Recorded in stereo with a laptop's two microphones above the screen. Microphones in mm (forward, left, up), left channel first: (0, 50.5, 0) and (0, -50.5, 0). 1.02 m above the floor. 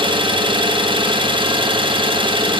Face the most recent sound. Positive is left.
turn(degrees=-55)  # may be behind; listen again after turning